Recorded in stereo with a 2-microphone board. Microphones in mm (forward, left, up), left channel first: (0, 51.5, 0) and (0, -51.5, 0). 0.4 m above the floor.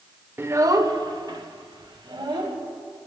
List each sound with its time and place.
0.4 s a child speaking: 25° right (ahead or behind), 0.6 m; by 2.6 s 55° right (ahead or behind), 1.7 m